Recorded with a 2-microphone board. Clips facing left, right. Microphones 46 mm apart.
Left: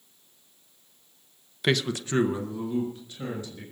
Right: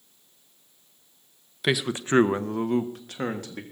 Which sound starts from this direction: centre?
A man speaking, at 1.6 s.